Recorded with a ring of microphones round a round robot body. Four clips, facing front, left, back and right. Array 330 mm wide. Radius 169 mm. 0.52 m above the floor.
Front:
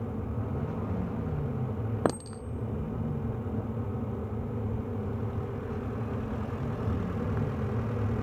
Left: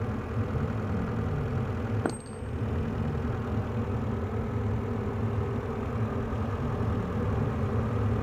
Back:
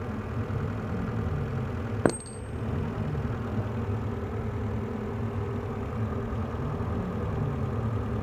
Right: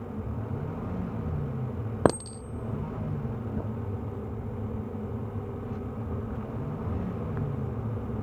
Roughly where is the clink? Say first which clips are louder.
Right 7 dB, back 4 dB; behind right.